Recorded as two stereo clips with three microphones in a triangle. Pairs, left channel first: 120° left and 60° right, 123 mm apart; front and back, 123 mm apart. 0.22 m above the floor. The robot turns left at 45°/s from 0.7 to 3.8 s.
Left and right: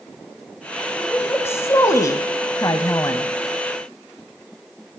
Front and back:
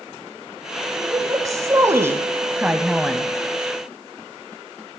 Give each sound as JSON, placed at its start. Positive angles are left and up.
{"t": 1.0, "sound": "a woman speaking", "azimuth_deg": -175, "distance_m": 1.1}